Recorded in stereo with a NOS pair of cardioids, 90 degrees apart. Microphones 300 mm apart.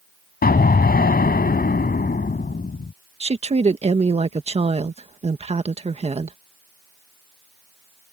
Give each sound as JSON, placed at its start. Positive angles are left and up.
{"t": 0.4, "sound": "an explosion", "azimuth_deg": 30}
{"t": 3.2, "sound": "a woman speaking", "azimuth_deg": -20}